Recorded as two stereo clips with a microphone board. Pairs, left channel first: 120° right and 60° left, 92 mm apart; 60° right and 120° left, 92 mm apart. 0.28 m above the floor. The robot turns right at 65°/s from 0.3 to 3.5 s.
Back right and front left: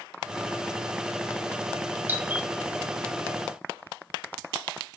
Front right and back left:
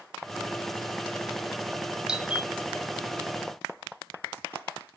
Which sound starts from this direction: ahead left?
A doorbell, at 2.1 s.